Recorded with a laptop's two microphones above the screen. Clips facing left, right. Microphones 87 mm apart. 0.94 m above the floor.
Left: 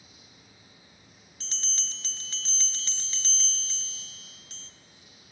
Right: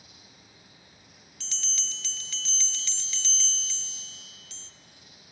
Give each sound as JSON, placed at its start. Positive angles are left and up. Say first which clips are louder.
{"t": 0.0, "sound": "an insect", "louder": "right 1 dB", "side_deg": -75, "distance_m": 6.0}
{"t": 1.4, "sound": "a bell", "louder": "even", "side_deg": 35, "distance_m": 0.6}